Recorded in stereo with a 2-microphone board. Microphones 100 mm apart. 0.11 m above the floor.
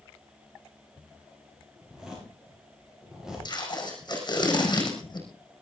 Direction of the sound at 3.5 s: 45° left (ahead or behind).